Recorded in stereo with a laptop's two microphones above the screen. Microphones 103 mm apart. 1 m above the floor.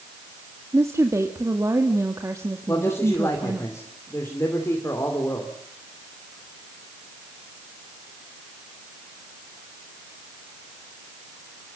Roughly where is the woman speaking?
Right.